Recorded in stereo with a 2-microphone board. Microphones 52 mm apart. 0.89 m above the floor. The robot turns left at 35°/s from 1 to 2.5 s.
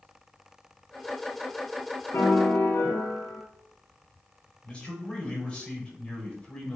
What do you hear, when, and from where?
2.1 s a piano: 70° left (ahead or behind), 2 m; by 3.4 s 75° left (ahead or behind), 2 m
4.6 s a man speaking: 20° left (ahead or behind), 5 m